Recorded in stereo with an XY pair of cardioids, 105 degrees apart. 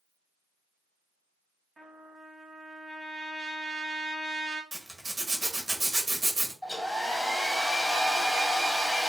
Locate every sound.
1.8 s a trumpet: 25° right, 0.9 m
4.7 s a zipper: 25° right, 0.8 m
6.6 s a hair dryer: 5° left, 0.7 m